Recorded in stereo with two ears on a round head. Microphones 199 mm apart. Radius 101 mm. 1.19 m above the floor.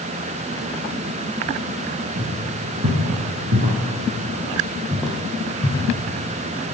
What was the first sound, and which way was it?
Footsteps, 55° right (ahead or behind).